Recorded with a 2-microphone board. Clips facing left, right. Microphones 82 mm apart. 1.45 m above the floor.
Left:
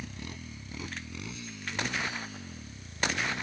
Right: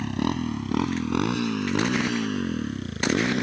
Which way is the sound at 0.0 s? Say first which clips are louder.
Right 17 dB; 80° right.